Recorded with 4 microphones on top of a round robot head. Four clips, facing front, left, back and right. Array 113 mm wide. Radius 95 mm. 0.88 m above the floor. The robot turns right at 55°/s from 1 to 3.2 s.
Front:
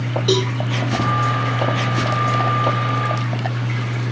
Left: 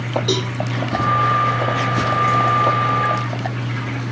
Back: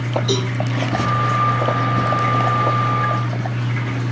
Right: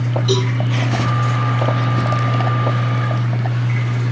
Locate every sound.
0.3 s a cowbell: 20° left, 6 m